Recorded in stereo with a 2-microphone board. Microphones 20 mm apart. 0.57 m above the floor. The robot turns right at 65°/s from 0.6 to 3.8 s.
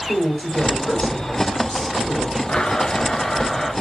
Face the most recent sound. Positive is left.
turn(degrees=180)